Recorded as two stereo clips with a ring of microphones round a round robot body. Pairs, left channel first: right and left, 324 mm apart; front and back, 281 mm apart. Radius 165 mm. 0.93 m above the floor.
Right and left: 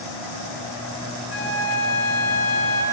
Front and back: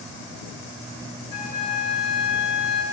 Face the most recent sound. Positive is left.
turn(degrees=-40)